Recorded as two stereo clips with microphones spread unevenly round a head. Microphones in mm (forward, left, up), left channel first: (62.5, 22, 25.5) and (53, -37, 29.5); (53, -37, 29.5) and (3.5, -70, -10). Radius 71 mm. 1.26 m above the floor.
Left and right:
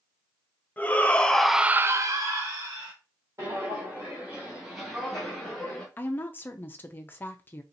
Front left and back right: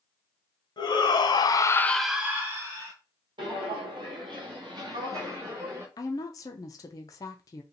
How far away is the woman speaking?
About 0.6 m.